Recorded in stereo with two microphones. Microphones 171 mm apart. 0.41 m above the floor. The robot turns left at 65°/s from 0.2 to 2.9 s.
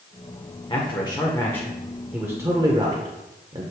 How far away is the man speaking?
About 1.0 m.